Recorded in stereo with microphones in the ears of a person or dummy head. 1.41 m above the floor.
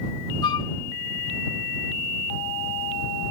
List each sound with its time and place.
0.4 s a flute: 35° left (ahead or behind)